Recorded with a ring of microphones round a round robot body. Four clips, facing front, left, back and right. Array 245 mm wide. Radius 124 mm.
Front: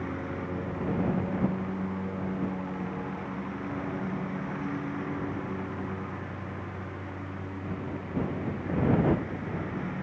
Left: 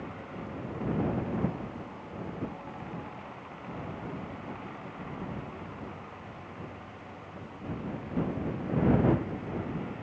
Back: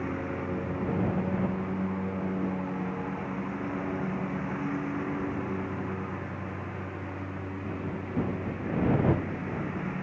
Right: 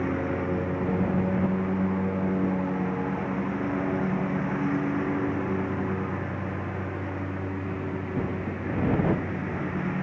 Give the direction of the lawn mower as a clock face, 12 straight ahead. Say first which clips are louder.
Right 13 dB, back 2 dB; 3 o'clock.